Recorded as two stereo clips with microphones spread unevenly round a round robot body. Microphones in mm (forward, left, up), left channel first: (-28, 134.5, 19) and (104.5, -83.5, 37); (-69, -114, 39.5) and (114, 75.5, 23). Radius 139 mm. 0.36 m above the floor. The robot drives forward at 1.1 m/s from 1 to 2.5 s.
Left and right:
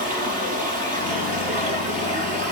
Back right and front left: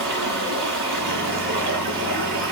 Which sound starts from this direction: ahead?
Running water, at 0.0 s.